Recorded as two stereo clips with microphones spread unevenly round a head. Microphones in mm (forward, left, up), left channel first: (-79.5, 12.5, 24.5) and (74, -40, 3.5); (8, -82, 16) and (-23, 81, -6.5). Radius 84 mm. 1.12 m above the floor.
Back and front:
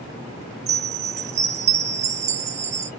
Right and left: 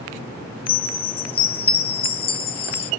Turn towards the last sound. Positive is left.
turn(degrees=-25)